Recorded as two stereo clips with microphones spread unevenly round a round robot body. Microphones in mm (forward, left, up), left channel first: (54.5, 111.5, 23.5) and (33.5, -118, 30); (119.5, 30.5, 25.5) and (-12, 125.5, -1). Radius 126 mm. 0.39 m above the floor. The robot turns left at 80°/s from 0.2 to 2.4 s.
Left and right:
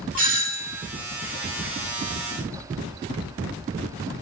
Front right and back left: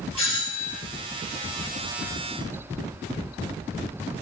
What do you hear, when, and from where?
0.2 s a doorbell: 85° right, 2 m; by 0.8 s 135° right, 2 m